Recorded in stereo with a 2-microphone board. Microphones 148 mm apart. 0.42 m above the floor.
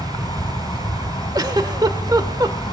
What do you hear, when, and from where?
0.0 s an insect: 25° left (ahead or behind), 4 m
1.4 s a giggle: 25° right (ahead or behind), 1.3 m